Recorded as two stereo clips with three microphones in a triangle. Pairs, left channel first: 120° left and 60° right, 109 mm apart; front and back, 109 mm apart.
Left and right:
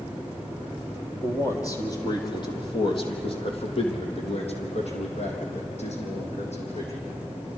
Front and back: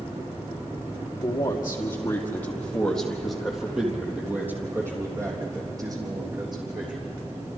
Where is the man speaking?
55° left, 4 m; by 7.1 s 135° left, 5 m.